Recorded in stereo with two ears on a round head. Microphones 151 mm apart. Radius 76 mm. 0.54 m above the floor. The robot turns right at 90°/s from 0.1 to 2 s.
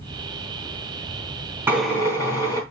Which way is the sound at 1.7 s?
10° right (ahead or behind).